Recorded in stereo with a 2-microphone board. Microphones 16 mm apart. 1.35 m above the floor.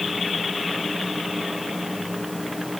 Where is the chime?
I don't hear a chime.